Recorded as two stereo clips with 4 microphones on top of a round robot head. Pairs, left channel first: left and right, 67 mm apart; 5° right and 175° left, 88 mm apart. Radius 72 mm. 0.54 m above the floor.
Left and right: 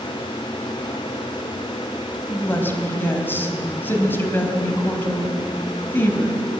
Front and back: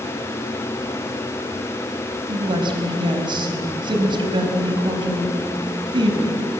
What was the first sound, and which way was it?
A woman speaking, 145° left.